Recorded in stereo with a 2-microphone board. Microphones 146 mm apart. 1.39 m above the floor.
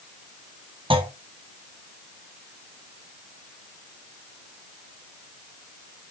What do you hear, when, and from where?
0.9 s a clunk: 35° right (ahead or behind), 1.3 m